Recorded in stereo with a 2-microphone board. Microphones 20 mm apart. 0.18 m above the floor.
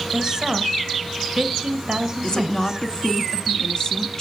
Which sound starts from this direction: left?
A woman speaking, at 2.2 s.